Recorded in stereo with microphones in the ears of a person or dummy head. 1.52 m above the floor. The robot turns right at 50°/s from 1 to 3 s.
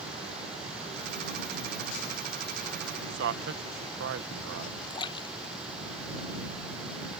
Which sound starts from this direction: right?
A man speaking, at 3.1 s.